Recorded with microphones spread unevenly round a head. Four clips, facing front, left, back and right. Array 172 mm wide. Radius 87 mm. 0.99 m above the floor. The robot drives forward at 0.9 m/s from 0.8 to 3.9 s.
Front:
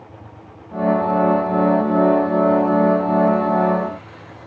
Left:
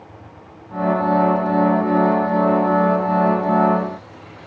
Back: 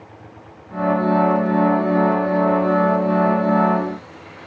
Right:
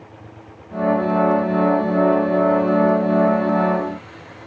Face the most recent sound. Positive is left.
No sound to turn to.